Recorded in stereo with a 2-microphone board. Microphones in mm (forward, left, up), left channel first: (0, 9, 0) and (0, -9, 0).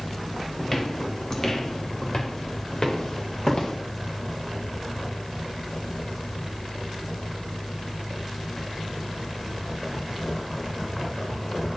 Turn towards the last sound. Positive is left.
turn(degrees=45)  # may be behind; listen again after turning